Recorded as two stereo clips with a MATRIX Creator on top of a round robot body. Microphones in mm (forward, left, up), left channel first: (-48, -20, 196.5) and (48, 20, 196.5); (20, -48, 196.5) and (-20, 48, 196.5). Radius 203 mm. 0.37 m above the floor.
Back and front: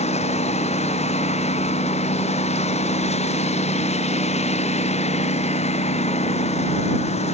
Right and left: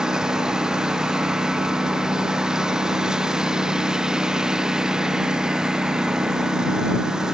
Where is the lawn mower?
165° right.